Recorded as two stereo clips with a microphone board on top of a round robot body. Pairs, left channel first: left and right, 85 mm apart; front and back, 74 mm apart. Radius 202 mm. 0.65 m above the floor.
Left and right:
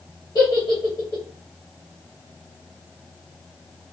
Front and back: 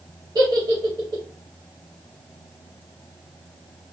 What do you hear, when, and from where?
0.3 s a giggle: 135° left, 0.8 m